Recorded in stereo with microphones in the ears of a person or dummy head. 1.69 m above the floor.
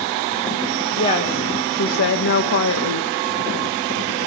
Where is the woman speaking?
35° left (ahead or behind), 1.7 m; by 3.1 s 60° left (ahead or behind), 1.4 m.